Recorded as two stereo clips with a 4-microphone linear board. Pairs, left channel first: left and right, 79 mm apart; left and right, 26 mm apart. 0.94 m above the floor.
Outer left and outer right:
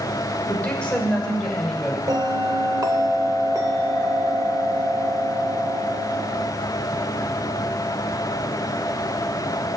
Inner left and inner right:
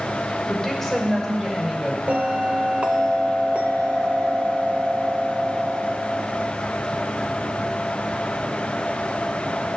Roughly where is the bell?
Right.